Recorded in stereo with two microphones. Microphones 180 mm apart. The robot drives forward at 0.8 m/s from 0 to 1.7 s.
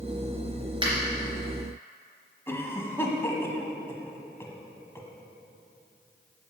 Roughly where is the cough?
Centre.